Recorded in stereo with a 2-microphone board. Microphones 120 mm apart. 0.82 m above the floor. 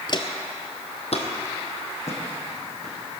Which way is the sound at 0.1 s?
40° left (ahead or behind).